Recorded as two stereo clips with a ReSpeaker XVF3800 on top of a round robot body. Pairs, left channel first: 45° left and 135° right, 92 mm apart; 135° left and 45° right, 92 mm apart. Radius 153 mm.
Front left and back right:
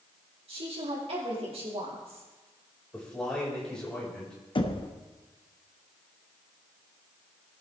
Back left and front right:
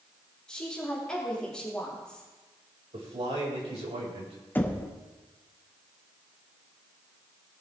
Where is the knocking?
65° left, 1.3 m.